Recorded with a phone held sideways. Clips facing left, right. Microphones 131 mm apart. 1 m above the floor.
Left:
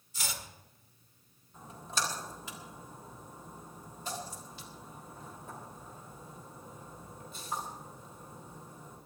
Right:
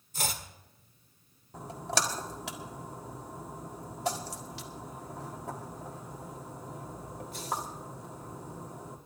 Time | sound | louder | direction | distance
0.1 | chopping | right 5 dB | 50° right (ahead or behind) | 1.7 m
1.5 | a splash | right 5 dB | 80° right | 1.7 m